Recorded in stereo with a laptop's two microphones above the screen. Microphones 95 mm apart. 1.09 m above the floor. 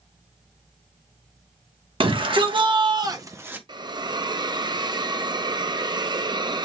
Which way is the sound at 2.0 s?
65° right (ahead or behind).